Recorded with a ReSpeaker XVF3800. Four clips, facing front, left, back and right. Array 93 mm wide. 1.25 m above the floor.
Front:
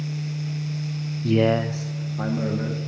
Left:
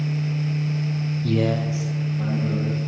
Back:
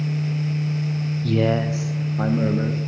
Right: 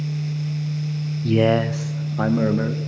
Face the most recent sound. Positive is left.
turn(degrees=-105)